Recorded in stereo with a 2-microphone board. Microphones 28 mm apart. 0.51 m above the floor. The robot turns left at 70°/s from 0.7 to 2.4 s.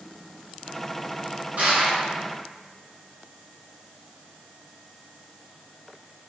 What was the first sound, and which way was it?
Crushing, 75° right.